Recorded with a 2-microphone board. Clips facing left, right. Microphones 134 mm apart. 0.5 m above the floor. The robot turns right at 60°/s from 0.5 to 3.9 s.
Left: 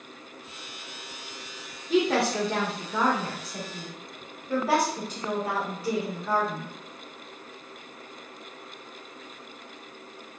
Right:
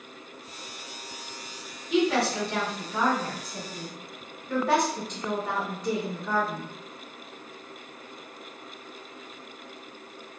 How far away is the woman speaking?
About 1.3 m.